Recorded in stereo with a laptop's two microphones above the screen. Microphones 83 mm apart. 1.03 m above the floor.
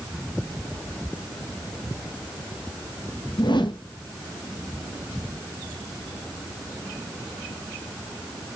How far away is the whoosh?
About 1.0 m.